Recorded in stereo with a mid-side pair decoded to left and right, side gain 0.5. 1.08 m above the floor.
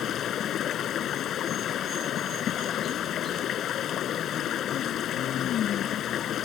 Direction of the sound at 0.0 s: 60° left.